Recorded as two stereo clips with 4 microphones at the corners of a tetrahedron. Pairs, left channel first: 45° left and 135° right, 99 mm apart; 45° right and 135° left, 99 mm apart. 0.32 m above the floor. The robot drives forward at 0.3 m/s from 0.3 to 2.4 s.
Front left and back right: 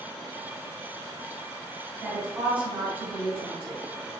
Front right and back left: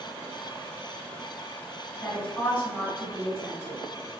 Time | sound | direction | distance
2.0 | a woman speaking | 65° right | 1.0 m